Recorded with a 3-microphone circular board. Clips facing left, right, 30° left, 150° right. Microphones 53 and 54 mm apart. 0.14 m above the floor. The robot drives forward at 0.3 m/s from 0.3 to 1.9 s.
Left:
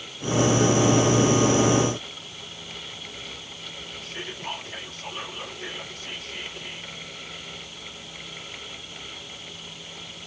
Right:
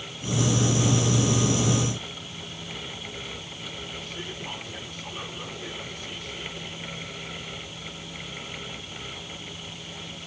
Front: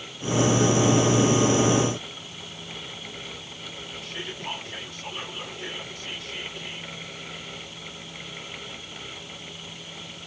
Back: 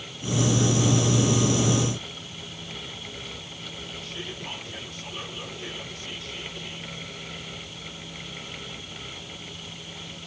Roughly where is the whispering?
Left.